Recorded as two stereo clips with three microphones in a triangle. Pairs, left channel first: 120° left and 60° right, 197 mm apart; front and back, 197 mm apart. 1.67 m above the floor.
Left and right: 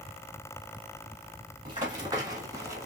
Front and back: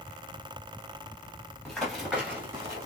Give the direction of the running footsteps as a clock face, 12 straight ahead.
3 o'clock.